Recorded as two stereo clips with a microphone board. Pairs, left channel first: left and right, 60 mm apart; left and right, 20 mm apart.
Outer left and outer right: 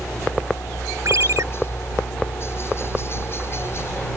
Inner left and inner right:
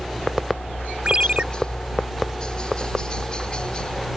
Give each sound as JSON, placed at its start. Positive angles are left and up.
{"t": 0.0, "sound": "a helicopter", "side_deg": 45}
{"t": 1.1, "sound": "a ringtone", "side_deg": -65}